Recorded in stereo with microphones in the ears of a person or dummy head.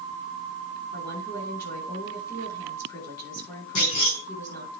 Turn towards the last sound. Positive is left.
turn(degrees=65)  # may be behind; listen again after turning